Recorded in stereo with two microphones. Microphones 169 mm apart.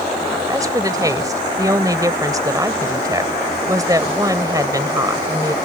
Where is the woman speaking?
20° right (ahead or behind).